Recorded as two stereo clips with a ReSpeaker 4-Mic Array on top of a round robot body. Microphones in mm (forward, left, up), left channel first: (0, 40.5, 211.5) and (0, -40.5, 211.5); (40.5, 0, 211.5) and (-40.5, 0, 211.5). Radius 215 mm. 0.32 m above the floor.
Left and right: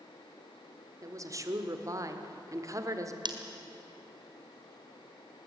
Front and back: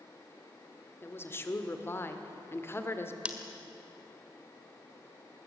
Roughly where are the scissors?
Right.